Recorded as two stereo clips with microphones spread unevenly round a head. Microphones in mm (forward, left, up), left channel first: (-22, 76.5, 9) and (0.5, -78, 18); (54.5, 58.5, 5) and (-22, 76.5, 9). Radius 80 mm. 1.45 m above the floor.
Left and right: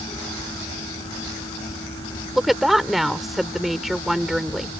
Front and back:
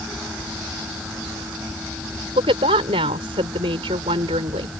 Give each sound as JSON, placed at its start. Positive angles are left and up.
{"t": 2.4, "sound": "a woman speaking", "azimuth_deg": -170}